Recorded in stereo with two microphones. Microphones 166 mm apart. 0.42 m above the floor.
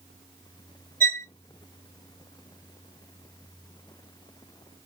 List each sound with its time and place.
1.0 s a violin: 60° right (ahead or behind), 1.5 m